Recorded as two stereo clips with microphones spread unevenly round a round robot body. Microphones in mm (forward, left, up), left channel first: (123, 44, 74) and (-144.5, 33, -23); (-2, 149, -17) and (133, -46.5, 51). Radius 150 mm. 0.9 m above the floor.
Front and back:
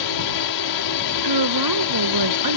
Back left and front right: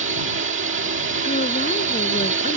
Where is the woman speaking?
165° right.